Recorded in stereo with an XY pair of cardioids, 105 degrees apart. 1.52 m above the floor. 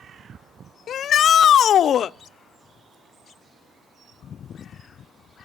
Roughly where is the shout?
Ahead left.